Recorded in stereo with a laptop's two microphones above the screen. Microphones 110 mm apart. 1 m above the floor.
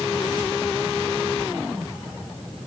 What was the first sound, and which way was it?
Only background noise.